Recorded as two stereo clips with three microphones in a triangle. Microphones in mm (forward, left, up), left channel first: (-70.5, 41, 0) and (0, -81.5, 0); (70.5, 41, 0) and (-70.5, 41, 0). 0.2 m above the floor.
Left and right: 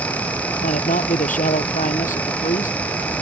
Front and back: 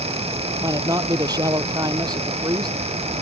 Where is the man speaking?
120° left.